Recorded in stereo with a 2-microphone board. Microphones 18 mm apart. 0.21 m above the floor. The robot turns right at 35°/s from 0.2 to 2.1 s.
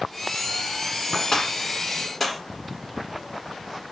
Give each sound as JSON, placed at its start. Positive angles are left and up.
{"t": 1.3, "sound": "a gunshot", "side_deg": 35, "distance_m": 1.5}